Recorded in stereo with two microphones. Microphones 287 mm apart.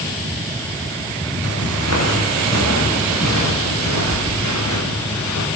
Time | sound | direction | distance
1.4 | footsteps | 55° left (ahead or behind) | 9.5 m